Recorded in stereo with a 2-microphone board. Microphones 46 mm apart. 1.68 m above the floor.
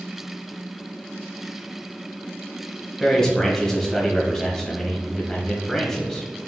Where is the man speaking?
10° left (ahead or behind), 1.2 m.